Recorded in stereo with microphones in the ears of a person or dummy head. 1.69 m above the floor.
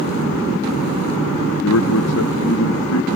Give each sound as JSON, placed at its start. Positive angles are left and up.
{"t": 1.6, "sound": "a man speaking", "side_deg": 75}